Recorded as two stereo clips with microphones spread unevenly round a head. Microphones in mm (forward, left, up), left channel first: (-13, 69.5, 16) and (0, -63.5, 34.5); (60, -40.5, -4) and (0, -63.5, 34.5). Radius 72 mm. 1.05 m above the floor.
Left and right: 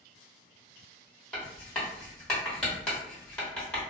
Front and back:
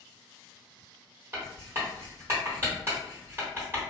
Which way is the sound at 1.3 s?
175° right.